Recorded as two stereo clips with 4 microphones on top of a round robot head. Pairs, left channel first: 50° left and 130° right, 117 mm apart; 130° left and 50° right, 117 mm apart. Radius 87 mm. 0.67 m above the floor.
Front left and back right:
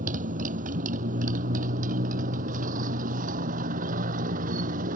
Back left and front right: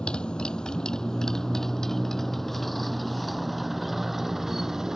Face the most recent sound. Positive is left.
turn(degrees=-135)